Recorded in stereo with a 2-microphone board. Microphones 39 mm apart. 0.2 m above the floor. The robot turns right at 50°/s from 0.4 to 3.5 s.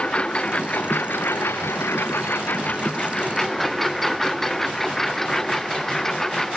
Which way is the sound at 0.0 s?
30° left (ahead or behind).